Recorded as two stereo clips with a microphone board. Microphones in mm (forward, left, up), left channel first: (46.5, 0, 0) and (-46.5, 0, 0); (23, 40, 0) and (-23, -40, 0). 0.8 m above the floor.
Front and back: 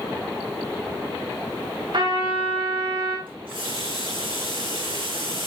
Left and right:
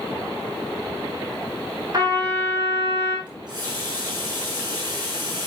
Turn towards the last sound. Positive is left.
turn(degrees=-165)